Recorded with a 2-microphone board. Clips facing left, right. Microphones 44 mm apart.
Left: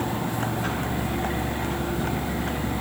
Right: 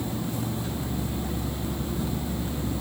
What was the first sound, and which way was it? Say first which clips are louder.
A vehicle: left 4 dB; 60° left (ahead or behind).